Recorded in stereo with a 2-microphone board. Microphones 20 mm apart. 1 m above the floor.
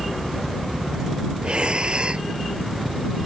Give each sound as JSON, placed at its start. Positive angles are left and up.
{"t": 1.4, "sound": "breathing", "side_deg": -55}